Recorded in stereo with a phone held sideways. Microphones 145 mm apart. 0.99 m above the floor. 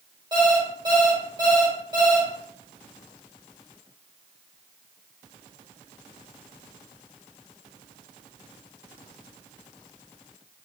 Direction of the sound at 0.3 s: 30° right (ahead or behind).